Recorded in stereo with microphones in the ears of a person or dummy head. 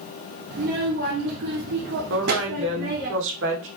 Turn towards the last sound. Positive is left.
turn(degrees=-75)  # may be behind; listen again after turning